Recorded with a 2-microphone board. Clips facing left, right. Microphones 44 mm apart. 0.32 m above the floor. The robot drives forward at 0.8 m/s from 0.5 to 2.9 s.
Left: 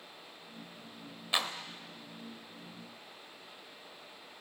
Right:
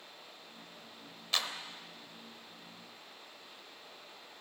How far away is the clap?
About 0.9 m.